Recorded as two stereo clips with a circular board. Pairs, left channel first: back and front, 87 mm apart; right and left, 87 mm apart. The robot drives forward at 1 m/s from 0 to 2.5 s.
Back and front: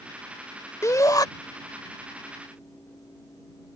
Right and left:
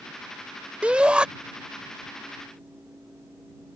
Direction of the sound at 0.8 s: 160° left.